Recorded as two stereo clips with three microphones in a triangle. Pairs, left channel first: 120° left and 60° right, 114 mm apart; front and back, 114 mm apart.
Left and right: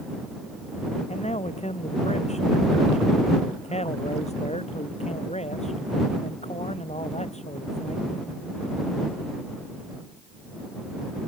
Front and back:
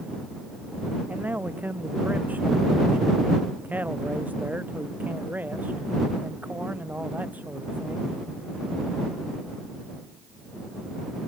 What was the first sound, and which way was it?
A man speaking, 105° left.